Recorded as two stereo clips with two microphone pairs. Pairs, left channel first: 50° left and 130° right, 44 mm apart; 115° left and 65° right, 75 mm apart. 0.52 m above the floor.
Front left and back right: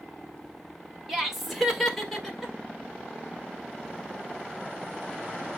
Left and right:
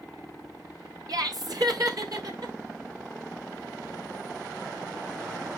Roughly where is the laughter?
Ahead right.